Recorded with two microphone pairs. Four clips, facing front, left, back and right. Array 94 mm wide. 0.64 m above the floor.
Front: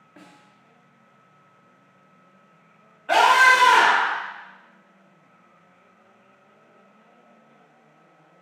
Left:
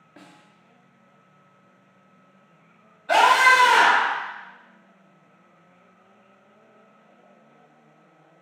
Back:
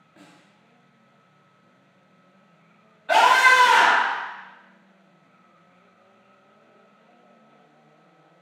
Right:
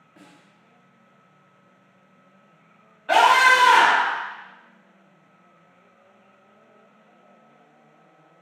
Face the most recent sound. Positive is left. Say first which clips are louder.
# right 1 dB, even
turn(degrees=-75)